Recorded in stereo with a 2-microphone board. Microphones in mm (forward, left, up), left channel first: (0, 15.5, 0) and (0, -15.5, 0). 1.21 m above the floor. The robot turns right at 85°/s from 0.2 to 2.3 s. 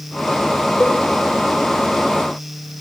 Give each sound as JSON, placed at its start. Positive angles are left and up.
{"t": 0.8, "sound": "a cowbell", "side_deg": 80, "distance_m": 4.5}